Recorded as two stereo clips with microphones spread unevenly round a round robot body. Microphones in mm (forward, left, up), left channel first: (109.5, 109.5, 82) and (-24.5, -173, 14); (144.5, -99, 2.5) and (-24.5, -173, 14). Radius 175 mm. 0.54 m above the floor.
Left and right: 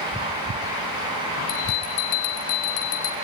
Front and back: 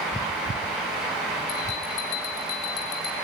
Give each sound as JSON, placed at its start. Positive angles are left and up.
{"t": 1.5, "sound": "a bell", "azimuth_deg": 45, "distance_m": 1.0}